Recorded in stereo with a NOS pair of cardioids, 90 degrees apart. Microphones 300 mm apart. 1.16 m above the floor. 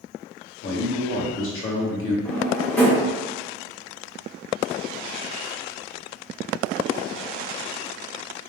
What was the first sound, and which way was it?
A man speaking, 45° left.